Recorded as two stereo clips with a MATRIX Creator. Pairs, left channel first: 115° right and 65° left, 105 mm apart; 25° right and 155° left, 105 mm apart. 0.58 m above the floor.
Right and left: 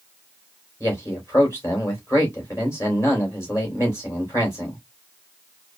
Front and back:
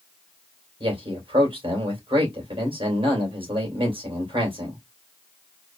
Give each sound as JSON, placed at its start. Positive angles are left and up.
{"t": 0.8, "sound": "a man speaking", "azimuth_deg": -175, "distance_m": 3.0}